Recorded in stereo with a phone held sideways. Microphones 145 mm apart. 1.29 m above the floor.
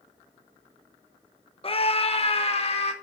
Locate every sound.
1.6 s a scream: 40° left (ahead or behind), 0.8 m